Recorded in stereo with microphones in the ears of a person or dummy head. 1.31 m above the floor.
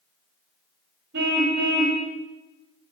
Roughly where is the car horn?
Right.